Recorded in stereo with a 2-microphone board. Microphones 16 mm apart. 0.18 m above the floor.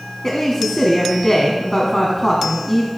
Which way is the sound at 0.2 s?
25° left (ahead or behind).